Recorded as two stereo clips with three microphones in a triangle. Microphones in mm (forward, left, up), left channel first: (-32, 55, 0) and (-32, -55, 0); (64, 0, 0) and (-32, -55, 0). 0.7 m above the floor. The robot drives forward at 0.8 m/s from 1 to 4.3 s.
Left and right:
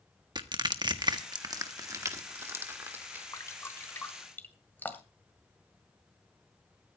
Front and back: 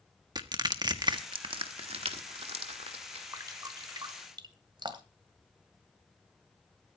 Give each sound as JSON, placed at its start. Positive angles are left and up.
{"t": 0.3, "sound": "crushing", "azimuth_deg": -120, "distance_m": 1.2}
{"t": 3.3, "sound": "dripping", "azimuth_deg": 150, "distance_m": 1.1}